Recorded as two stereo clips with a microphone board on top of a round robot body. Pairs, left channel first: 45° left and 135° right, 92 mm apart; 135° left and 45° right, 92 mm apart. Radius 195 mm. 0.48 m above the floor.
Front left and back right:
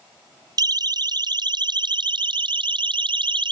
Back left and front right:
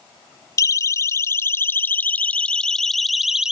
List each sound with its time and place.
0.6 s a siren: 175° right; by 3.5 s 125° right